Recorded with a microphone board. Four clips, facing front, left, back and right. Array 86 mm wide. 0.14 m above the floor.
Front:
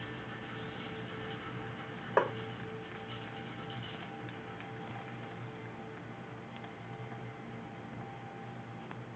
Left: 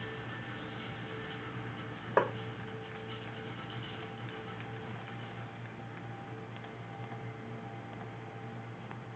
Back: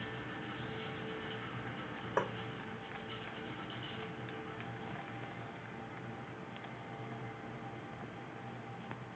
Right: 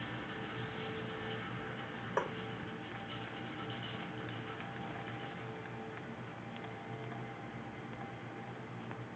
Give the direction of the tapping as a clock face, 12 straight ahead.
10 o'clock.